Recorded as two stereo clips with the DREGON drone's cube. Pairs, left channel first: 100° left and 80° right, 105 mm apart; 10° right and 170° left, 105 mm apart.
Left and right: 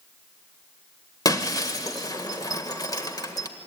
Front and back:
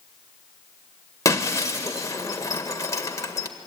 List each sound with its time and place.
1.2 s breaking glass: 45° left, 1.6 m